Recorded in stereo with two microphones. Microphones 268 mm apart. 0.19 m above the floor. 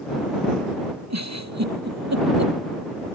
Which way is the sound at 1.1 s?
70° right (ahead or behind).